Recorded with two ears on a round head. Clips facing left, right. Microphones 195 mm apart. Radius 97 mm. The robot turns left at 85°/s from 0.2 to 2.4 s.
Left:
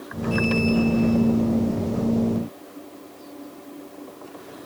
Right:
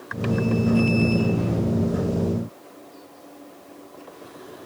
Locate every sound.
Only background noise.